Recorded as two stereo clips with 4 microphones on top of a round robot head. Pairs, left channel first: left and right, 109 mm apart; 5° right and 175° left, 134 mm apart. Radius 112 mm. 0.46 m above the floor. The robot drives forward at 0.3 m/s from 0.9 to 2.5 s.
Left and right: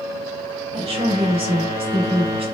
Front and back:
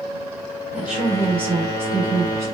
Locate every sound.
0.7 s a woman speaking: 105° right, 2.5 m; by 2.5 s 115° right, 2.5 m